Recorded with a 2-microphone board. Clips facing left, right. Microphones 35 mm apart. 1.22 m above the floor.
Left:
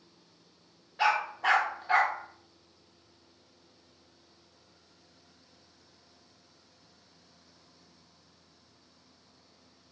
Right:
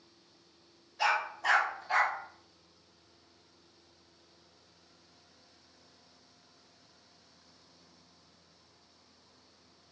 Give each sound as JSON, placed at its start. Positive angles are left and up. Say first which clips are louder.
{"t": 1.0, "sound": "a dog barking", "louder": "left 3 dB", "side_deg": 45, "distance_m": 1.0}